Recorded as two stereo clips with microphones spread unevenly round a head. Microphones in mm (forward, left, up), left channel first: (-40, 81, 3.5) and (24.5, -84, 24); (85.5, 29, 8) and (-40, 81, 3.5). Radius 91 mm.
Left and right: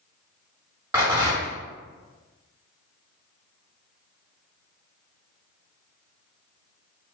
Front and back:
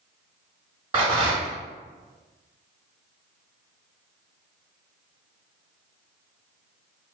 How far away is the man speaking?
I don't hear a man speaking.